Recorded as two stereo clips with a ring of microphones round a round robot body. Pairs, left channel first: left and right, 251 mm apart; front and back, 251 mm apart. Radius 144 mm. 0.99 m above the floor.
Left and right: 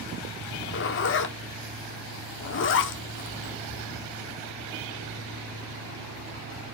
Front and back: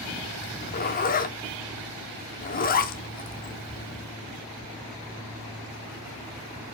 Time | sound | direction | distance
0.4 | a zipper | 55° left | 0.9 m